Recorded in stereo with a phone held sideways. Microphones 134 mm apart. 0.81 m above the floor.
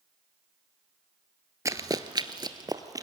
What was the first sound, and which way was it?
Running footsteps, 25° right (ahead or behind).